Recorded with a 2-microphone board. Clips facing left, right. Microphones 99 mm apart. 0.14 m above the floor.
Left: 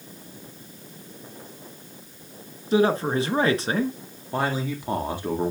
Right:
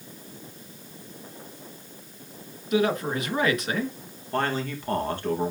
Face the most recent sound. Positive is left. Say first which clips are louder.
# left 1 dB
turn(degrees=10)  # may be behind; listen again after turning